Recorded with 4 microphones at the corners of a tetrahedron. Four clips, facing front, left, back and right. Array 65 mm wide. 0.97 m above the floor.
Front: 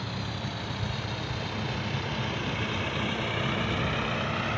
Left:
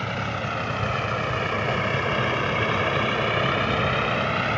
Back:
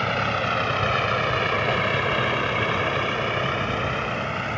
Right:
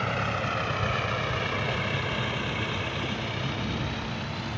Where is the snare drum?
I don't hear a snare drum.